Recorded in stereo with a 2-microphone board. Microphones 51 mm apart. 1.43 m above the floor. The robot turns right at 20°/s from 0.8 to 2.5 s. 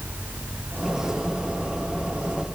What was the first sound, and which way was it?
Only background noise.